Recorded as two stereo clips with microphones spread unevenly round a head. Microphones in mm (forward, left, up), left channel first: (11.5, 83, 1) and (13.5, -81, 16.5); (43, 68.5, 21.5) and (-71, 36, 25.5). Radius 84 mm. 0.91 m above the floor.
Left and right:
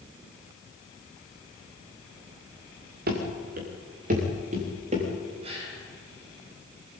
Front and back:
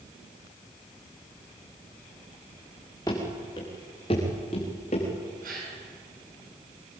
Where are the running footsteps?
60° right, 5.5 m; by 5.1 s 40° right, 7.5 m.